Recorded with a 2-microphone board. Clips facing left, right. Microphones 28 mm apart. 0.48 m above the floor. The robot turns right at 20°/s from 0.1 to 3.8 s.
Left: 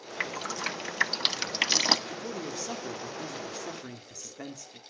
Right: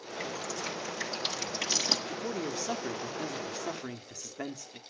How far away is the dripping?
About 0.5 m.